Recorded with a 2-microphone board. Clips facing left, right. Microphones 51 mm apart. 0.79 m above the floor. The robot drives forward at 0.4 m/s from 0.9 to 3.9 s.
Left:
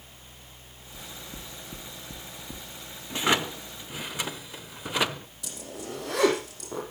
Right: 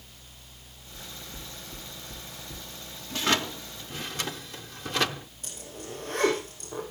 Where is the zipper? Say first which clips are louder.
Left 4 dB; 80° left, 4.5 m.